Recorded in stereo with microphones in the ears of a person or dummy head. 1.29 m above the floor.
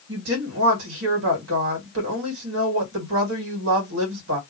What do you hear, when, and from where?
0.1 s a woman speaking: 65° right (ahead or behind), 1.5 m